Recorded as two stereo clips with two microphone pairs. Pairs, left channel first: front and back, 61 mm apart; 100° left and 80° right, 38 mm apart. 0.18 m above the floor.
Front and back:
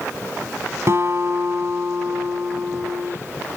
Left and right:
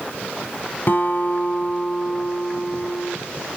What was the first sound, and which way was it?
A guitar, 145° left.